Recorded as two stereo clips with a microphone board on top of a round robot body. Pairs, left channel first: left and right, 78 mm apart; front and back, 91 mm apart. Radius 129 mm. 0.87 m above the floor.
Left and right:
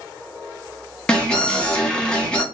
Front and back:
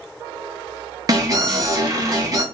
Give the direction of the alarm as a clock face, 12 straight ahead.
7 o'clock.